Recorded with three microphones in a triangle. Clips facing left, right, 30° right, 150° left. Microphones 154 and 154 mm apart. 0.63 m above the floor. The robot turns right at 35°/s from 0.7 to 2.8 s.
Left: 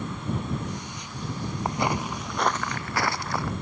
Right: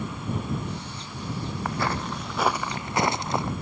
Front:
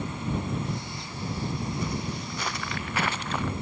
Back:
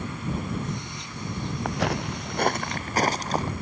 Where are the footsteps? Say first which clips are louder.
Left 2 dB, back 4 dB; 155° left; by 3.5 s 155° right.